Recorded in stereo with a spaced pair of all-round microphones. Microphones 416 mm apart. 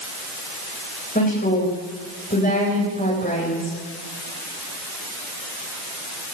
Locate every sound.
1.1 s a woman speaking: 20° left (ahead or behind), 10 m